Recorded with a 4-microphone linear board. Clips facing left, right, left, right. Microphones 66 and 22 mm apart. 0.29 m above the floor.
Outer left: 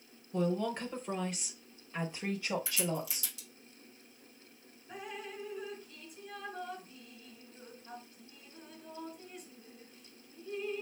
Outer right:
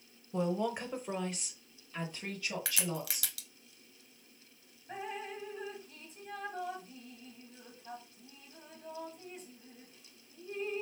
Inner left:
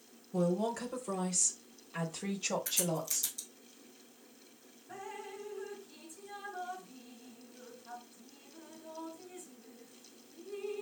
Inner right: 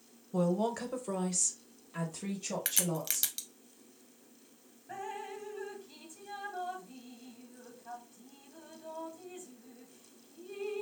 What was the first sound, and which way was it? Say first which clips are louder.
A woman speaking: even, inner right 1 dB; 20° right (ahead or behind).